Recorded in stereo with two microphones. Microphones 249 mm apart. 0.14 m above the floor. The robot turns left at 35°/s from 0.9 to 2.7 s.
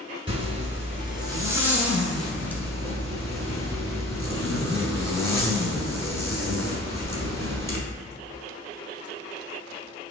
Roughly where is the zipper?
Behind right.